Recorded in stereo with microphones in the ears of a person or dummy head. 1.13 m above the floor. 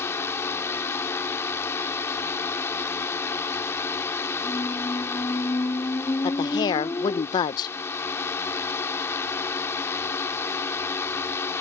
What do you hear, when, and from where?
0.0 s a drone: 15° left (ahead or behind)
4.4 s a squeak: 15° left (ahead or behind)
6.2 s a woman speaking: 30° left (ahead or behind)